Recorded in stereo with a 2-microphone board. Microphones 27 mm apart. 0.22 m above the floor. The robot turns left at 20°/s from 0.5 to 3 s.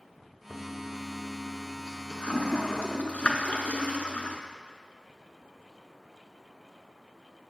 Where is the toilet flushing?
20° left (ahead or behind), 0.6 m; by 4.4 s 65° left (ahead or behind), 0.6 m.